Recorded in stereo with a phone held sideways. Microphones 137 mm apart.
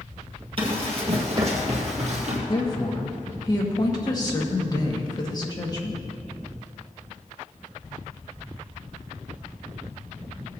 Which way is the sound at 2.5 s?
30° left (ahead or behind).